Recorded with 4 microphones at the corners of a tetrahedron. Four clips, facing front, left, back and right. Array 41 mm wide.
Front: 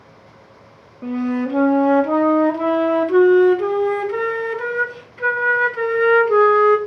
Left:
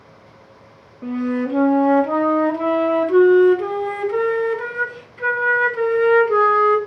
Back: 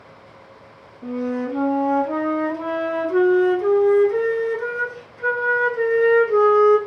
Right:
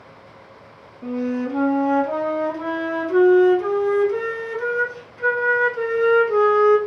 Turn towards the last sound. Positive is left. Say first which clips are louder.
# left 2 dB, front 3 dB
turn(degrees=30)